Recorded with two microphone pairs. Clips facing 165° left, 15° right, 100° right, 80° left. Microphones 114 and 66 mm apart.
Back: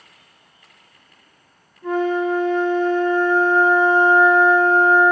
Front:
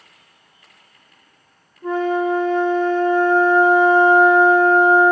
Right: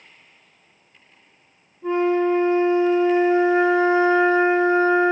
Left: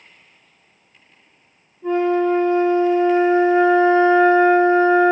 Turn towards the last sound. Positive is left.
turn(degrees=-45)